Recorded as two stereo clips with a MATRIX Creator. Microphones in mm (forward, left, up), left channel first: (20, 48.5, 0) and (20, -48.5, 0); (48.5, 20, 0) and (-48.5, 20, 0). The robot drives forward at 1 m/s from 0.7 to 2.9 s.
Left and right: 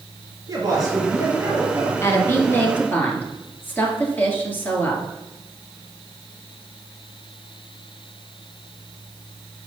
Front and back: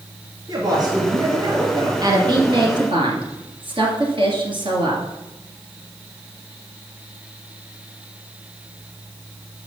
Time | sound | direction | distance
0.5 | a woman speaking | 140° right | 3 m
2.0 | a woman speaking | 145° left | 1.9 m